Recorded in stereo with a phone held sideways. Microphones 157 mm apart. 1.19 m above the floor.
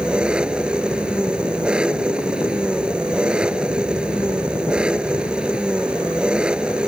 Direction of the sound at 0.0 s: 5° right (ahead or behind).